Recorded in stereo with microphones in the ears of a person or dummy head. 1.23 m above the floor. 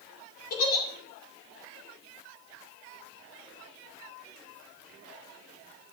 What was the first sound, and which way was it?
A giggle, 50° left (ahead or behind).